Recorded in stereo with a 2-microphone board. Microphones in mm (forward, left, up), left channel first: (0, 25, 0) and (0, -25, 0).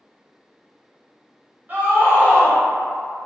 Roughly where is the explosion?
I don't hear an explosion.